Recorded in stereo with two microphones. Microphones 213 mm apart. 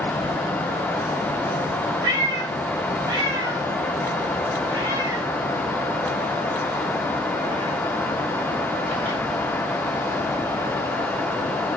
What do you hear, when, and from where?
2.0 s a cat meowing: 20° right (ahead or behind), 2.5 m